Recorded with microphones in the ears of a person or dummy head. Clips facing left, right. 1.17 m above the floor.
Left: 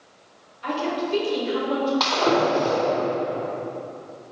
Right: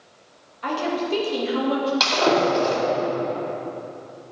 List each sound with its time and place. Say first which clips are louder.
0.6 s a woman speaking: right 1 dB; 70° right (ahead or behind), 1.9 m; by 1.9 s 45° right (ahead or behind), 1.7 m
2.0 s breaking glass: right 1 dB; 35° right (ahead or behind), 2.5 m